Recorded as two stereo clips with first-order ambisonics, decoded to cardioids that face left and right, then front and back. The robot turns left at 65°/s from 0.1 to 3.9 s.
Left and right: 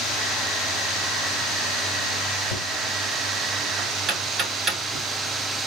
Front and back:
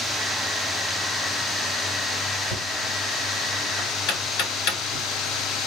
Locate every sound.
2.5 s knocking: 70° left, 2.0 m; by 5.0 s 20° right, 2.0 m